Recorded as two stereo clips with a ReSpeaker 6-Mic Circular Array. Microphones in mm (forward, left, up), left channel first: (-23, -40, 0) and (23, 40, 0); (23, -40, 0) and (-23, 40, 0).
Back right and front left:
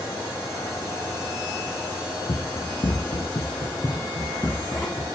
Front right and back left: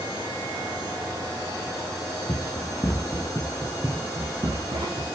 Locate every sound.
2.3 s running footsteps: 115° right, 1.4 m; by 5.0 s 155° left, 2 m